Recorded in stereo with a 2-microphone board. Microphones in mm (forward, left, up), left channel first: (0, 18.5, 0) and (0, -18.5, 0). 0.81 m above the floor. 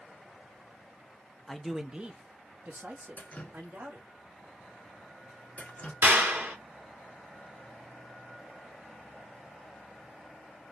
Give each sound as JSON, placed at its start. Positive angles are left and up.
{"t": 1.5, "sound": "a man speaking", "side_deg": 10, "distance_m": 0.8}
{"t": 3.2, "sound": "dripping", "side_deg": 40, "distance_m": 1.3}
{"t": 6.0, "sound": "a clap", "side_deg": -75, "distance_m": 2.0}